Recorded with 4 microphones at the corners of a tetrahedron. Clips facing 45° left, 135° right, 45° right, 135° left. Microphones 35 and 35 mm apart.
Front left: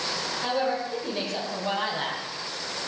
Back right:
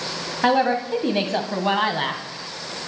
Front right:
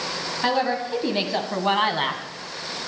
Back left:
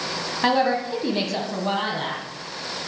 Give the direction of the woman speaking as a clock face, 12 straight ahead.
5 o'clock.